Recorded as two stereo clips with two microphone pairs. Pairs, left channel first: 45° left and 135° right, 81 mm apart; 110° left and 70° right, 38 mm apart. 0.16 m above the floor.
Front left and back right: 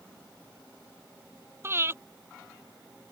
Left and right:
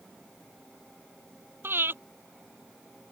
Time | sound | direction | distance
1.6 | breathing | 75° right | ?